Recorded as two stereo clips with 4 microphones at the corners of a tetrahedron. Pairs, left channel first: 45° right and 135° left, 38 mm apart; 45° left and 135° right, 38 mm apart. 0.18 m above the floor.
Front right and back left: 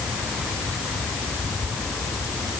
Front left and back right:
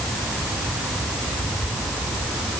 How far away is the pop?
No pop in this recording.